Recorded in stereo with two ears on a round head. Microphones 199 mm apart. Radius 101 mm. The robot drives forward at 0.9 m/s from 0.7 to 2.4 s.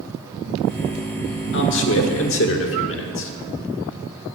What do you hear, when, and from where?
1.5 s a man speaking: 55° left (ahead or behind), 1.4 m; by 3.3 s 65° left (ahead or behind), 1.3 m